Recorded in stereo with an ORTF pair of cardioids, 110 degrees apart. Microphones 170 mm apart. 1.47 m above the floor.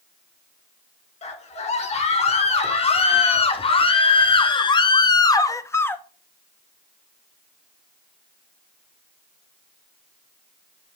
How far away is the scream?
About 5.5 m.